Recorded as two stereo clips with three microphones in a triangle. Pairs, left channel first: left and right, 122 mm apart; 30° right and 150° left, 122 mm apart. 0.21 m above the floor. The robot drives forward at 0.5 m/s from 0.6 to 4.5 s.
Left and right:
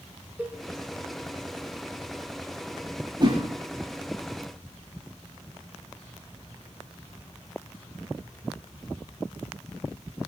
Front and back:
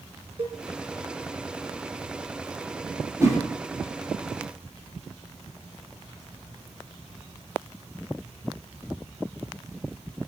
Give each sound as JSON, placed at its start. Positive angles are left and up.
{"t": 0.4, "sound": "a cowbell", "azimuth_deg": -165, "distance_m": 3.0}
{"t": 3.2, "sound": "a whoosh", "azimuth_deg": -145, "distance_m": 9.0}